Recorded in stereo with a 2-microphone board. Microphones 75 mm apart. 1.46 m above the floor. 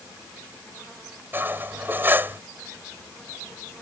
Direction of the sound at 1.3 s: 30° right (ahead or behind).